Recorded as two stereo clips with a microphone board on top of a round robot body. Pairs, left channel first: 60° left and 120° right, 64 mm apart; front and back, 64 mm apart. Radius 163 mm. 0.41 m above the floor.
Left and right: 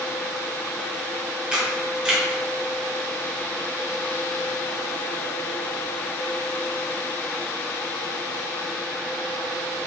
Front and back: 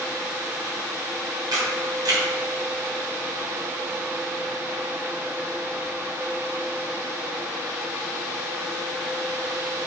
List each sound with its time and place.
1.5 s a camera shutter: 165° left, 1.0 m